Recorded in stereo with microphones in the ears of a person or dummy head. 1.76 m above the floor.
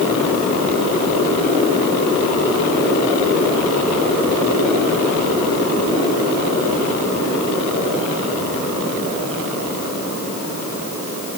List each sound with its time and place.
Only background noise.